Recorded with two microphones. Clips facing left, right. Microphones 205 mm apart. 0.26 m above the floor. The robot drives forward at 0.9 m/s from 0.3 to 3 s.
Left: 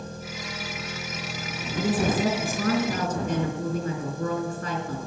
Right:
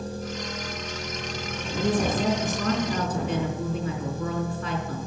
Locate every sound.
0.0 s an engine running: 35° right (ahead or behind), 3.5 m; by 5.1 s 20° right (ahead or behind), 6 m
1.8 s a woman speaking: 55° left (ahead or behind), 2.5 m; by 5.0 s 45° left (ahead or behind), 3 m